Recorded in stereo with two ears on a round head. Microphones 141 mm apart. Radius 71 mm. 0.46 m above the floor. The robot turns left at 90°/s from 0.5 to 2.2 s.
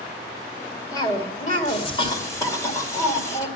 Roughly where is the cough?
Behind left.